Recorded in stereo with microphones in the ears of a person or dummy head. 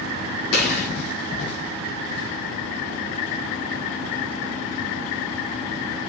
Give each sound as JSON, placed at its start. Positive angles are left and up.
{"t": 0.5, "sound": "a gunshot", "side_deg": 80, "distance_m": 4.0}